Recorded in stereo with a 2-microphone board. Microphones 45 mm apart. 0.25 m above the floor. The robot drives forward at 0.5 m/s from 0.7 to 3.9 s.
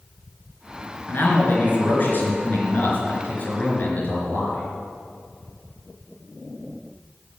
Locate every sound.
1.1 s a man speaking: 45° left (ahead or behind), 3.5 m; by 4.6 s 35° left (ahead or behind), 4.5 m